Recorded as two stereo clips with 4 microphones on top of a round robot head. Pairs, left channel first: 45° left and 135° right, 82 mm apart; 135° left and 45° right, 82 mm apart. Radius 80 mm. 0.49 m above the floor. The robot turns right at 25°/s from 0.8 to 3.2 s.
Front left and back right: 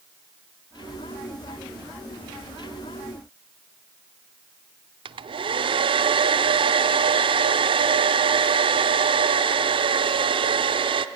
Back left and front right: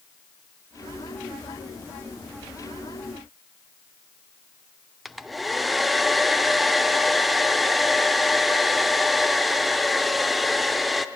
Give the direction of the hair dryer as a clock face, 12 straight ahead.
5 o'clock.